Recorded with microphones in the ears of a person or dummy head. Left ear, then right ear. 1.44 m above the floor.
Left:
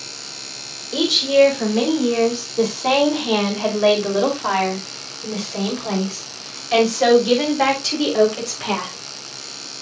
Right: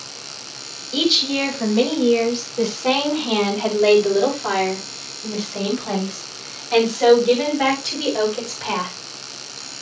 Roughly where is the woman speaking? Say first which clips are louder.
Left 3 dB; left.